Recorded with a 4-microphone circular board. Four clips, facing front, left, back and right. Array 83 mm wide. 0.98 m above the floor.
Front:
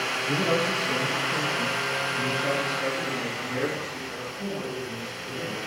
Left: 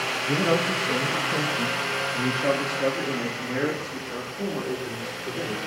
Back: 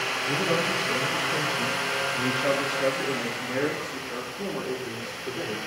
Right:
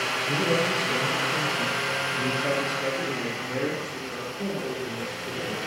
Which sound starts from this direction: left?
A man speaking, at 0.3 s.